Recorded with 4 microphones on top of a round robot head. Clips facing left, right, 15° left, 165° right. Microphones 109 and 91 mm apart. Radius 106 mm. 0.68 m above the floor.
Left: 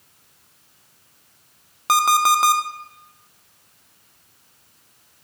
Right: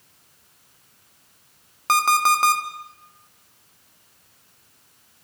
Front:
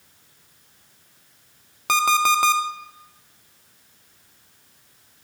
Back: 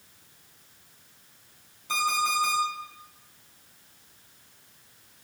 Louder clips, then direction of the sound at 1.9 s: Left 2 dB, front 8 dB; 10° left.